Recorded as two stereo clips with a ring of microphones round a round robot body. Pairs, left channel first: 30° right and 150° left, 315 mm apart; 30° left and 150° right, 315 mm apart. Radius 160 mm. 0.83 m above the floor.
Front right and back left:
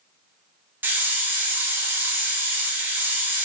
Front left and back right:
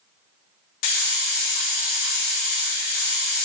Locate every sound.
0.8 s a hiss: 65° left, 0.5 m